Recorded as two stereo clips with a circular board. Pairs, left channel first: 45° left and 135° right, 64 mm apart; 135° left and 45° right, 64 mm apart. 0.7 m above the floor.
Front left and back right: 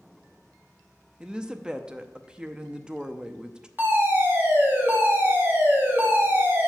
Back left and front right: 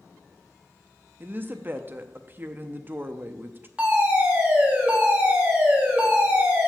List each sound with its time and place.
1.2 s a woman speaking: 70° right, 0.5 m
3.8 s a fire alarm: 105° right, 1.8 m